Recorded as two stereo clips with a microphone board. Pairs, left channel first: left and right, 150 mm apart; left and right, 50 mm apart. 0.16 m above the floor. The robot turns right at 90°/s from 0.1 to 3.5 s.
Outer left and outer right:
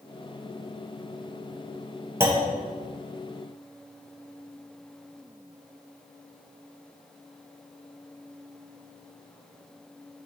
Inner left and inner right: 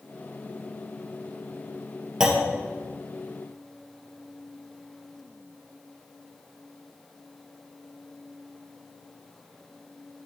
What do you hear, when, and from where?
2.2 s a clunk: 15° right (ahead or behind), 1.2 m; by 2.5 s 40° right (ahead or behind), 1.2 m